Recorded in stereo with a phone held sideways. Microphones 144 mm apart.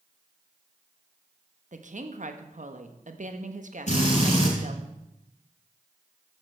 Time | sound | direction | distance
1.7 | a woman speaking | 60° right (ahead or behind) | 1.1 m
3.9 | a drill | 55° left (ahead or behind) | 6.5 m